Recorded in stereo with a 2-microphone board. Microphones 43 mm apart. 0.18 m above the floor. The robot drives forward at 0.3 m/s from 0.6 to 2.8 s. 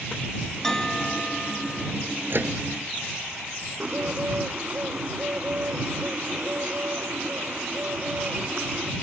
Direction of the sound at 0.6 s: 10° left (ahead or behind).